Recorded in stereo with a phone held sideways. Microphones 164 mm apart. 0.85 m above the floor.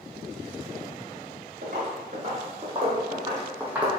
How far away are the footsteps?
About 2.0 m.